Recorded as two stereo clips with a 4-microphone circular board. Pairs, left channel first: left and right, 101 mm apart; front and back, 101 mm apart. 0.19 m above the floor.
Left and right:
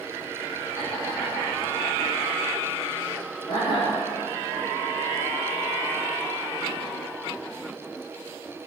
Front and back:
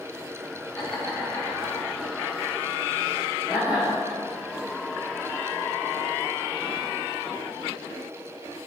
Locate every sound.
0.8 s laughter: 70° left, 3 m; by 3.9 s 110° left, 3.5 m